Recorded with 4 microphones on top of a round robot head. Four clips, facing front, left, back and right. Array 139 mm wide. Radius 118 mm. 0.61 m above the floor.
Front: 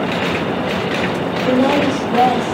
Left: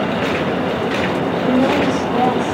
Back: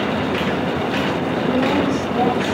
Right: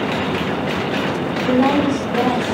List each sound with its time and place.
1.4 s a woman speaking: 15° left, 5 m